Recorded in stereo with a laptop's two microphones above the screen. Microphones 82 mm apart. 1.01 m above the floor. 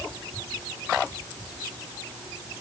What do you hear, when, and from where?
Only background noise.